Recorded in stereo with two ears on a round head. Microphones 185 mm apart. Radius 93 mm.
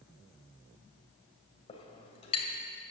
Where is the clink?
30° left (ahead or behind), 2 m.